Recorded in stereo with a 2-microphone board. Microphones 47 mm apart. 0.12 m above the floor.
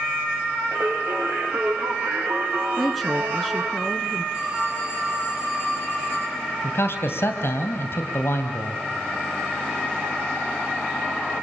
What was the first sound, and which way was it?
Singing, 70° right (ahead or behind).